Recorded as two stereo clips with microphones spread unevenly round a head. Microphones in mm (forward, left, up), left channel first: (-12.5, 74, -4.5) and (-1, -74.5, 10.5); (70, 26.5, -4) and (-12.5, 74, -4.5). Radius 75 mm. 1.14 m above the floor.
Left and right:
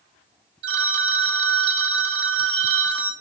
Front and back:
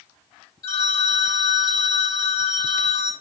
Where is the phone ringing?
100° right, 1.7 m.